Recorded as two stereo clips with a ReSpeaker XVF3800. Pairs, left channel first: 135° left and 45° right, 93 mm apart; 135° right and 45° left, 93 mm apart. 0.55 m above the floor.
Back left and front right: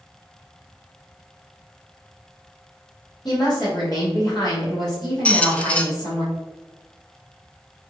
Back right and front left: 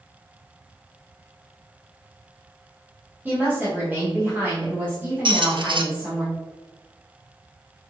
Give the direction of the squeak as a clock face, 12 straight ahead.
10 o'clock.